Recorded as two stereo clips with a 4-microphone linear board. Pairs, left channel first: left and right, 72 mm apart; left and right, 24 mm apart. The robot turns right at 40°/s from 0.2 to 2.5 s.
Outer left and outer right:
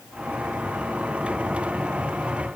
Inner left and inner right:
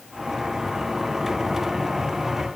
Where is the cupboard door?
I don't hear a cupboard door.